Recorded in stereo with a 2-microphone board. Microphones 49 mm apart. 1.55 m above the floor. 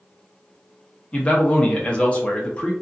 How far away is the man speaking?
About 0.6 m.